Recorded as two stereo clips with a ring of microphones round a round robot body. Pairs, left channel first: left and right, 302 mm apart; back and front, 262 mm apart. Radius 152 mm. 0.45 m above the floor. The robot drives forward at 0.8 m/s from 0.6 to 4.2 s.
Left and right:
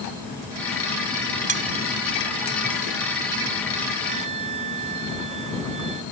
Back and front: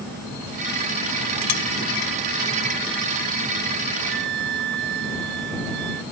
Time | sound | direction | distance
1.5 | cutlery clinking | 155° right | ?
4.1 | a flute | 20° right | ?